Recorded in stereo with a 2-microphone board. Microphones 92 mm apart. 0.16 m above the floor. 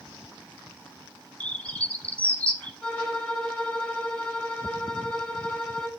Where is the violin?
10° left (ahead or behind), 4.5 m.